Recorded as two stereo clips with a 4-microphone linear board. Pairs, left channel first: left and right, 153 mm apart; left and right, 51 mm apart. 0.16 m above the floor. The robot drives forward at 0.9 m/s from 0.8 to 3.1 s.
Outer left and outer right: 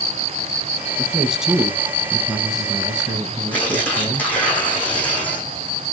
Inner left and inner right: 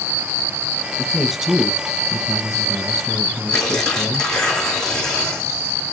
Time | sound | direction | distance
1.0 | a man speaking | 5° right (ahead or behind) | 1.3 m
3.5 | tearing paper | 10° left (ahead or behind) | 4.5 m